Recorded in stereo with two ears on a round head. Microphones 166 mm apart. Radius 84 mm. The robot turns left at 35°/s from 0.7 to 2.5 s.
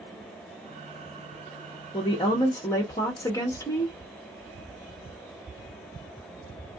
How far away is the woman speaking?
About 0.9 m.